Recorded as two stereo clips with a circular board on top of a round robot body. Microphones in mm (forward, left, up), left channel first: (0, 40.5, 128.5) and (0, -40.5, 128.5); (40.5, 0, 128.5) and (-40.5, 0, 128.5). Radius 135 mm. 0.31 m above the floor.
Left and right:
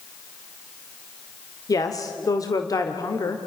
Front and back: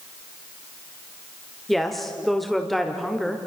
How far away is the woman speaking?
About 1.7 m.